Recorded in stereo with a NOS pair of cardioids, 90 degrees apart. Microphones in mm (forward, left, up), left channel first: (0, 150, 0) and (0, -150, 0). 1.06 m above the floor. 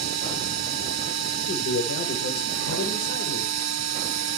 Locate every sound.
0.0 s a machine running: 65° right, 1.2 m
1.4 s a man speaking: 50° left, 4 m